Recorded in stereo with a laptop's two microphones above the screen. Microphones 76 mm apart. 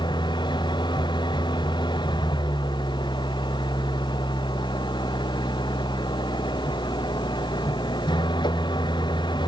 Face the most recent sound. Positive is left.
turn(degrees=90)